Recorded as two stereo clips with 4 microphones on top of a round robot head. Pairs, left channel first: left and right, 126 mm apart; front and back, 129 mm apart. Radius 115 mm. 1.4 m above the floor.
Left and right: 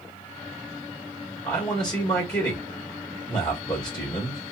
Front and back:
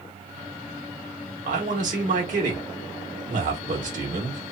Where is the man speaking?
160° left, 1.1 m.